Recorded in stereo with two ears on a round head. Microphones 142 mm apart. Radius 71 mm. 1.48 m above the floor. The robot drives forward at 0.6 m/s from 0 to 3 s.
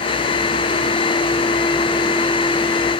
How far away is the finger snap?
No finger snap in this recording.